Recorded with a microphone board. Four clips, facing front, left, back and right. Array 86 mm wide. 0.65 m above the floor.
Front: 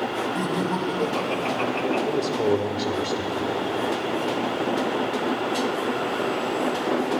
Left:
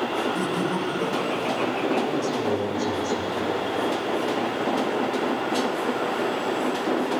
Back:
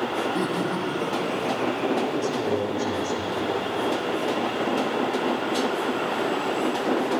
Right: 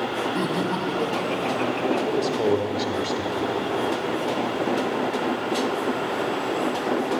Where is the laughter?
115° right, 1.3 m; by 2.0 s 5° left, 1.4 m.